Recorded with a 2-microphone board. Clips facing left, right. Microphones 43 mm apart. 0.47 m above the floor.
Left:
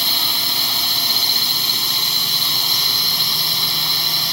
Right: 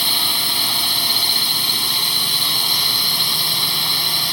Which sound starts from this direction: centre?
A drone, at 0.0 s.